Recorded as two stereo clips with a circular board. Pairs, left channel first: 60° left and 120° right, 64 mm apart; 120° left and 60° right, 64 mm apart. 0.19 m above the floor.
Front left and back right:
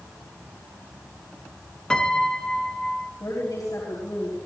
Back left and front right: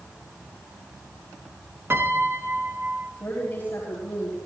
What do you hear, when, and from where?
1.9 s a piano: 20° right, 1.3 m
3.2 s a woman speaking: 60° left, 5.5 m